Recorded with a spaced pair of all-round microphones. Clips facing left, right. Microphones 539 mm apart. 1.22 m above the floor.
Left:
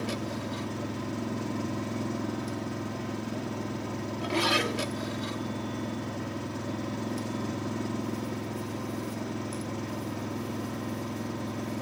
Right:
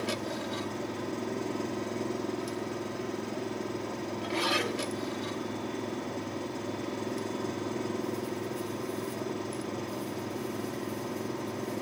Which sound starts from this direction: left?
An engine running, at 0.0 s.